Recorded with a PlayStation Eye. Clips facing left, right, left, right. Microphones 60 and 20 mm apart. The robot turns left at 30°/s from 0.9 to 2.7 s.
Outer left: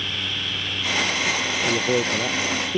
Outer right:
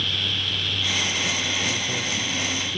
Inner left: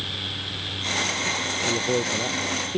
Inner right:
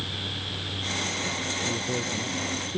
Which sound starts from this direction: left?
A man speaking, at 1.7 s.